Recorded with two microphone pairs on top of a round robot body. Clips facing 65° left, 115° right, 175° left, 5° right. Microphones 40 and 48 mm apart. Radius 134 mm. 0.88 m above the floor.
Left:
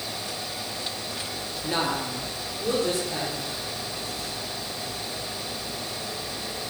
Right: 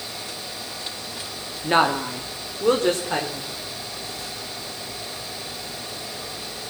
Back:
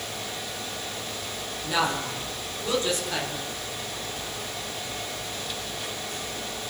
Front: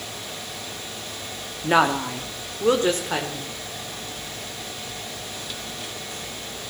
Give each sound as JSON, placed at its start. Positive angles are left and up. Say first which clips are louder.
{"t": 1.6, "sound": "a woman speaking", "louder": "right 8 dB, front 7 dB", "azimuth_deg": -55, "distance_m": 2.5}